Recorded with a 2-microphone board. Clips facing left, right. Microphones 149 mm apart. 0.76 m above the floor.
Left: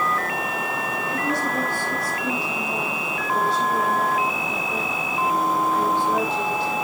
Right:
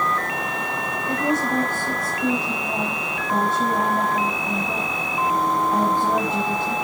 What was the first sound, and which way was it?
A woman speaking, 50° right (ahead or behind).